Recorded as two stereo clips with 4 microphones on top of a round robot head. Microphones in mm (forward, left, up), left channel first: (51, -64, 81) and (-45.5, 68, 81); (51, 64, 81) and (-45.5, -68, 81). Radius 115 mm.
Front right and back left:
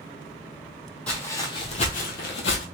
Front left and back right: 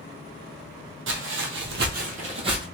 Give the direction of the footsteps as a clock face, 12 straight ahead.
5 o'clock.